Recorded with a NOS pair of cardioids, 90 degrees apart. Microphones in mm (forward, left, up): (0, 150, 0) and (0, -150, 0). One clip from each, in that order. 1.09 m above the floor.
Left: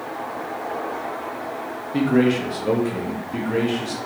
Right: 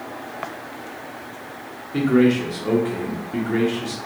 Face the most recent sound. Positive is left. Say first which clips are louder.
# right 1 dB
turn(degrees=5)